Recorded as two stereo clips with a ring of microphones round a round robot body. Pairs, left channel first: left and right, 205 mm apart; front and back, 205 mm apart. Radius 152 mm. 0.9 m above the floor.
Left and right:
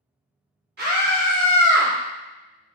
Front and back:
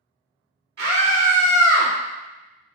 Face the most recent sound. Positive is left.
turn(degrees=-135)